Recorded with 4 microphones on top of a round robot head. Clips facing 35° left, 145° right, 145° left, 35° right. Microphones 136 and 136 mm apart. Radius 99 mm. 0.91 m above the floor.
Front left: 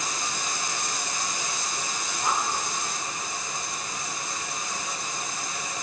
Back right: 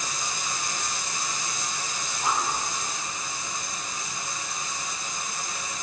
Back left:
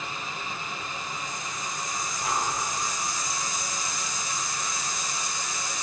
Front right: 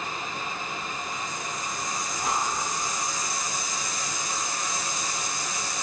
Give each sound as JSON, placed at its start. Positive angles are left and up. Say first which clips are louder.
{"t": 2.2, "sound": "breathing", "louder": "even, front right 1 dB", "azimuth_deg": -65, "distance_m": 9.0}